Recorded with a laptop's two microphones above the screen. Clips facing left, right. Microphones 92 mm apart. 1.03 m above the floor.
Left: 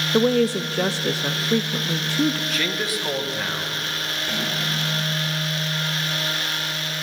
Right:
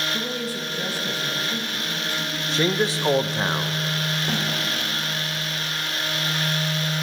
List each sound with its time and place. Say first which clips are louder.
0.1 s a woman speaking: left 11 dB; 75° left (ahead or behind), 0.9 m
2.5 s a man speaking: right 4 dB; 30° right (ahead or behind), 1.0 m
4.3 s a snare drum: even; 15° right (ahead or behind), 3 m